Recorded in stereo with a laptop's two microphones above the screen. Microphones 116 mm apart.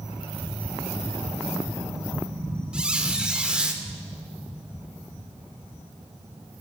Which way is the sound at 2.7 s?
10° right (ahead or behind).